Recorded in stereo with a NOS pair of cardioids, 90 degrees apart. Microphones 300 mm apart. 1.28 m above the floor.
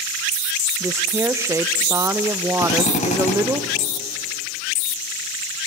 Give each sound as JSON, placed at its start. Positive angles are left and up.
{"t": 0.8, "sound": "a woman speaking", "azimuth_deg": -10, "distance_m": 0.8}
{"t": 2.6, "sound": "a drill", "azimuth_deg": 25, "distance_m": 4.5}